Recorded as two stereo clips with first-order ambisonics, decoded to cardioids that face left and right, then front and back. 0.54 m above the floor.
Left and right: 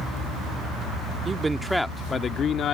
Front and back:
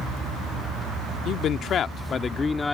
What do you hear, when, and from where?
1.2 s a man speaking: 25° right; by 2.8 s 75° left